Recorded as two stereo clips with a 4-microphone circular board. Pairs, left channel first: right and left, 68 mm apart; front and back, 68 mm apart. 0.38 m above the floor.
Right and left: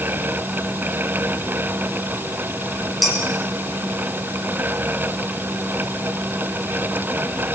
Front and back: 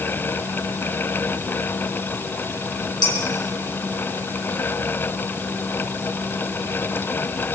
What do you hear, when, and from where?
3.0 s dishes clattering: straight ahead, 3.5 m